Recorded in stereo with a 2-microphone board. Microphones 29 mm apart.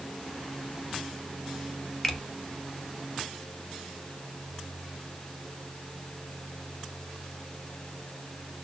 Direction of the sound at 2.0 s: 20° left (ahead or behind).